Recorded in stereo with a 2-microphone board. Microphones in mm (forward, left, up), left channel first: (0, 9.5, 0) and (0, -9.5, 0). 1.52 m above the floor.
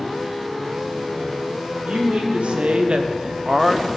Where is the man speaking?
85° right, 2.5 m; by 3.9 s 5° left (ahead or behind), 0.9 m.